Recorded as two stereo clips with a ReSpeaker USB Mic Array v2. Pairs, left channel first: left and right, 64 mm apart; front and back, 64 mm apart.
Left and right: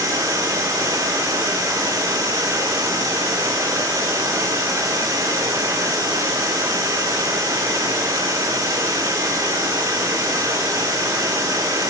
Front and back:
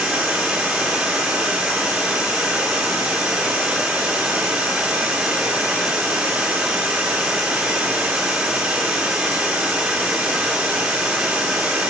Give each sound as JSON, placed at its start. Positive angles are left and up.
{"t": 0.0, "sound": "running water", "azimuth_deg": -110, "distance_m": 1.8}